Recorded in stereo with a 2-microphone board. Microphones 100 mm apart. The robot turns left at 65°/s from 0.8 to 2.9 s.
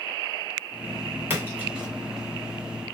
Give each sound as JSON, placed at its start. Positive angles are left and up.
{"t": 1.3, "sound": "a splash", "side_deg": -20, "distance_m": 1.6}